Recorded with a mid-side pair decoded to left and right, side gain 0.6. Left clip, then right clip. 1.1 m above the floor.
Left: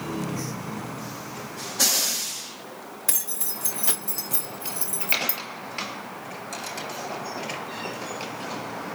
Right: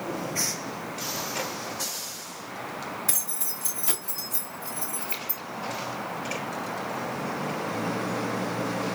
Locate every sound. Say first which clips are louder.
3.1 s keys jangling: left 1 dB; 30° left, 1.8 m; by 5.4 s 75° left, 0.8 m